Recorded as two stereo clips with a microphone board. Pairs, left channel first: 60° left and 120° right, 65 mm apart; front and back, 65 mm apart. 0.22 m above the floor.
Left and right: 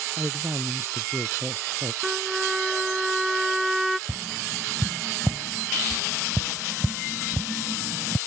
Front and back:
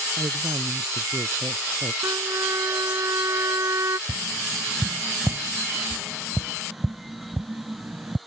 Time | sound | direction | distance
0.2 | a woman speaking | 170° right | ?
2.0 | a trumpet | 155° left | ?
4.1 | tapping | 160° right | ?